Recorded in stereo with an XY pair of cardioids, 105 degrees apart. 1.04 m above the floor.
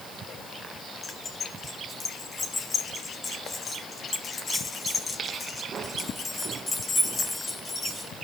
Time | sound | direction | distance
1.0 | keys jangling | 25° left | 5 m